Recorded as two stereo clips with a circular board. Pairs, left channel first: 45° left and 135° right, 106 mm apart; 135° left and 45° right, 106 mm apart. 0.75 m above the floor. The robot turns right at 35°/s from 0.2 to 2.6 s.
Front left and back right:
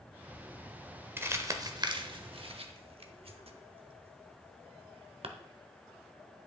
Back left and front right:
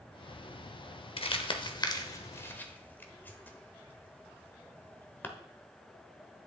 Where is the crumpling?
155° left, 0.8 m; by 5.3 s 155° right, 0.8 m.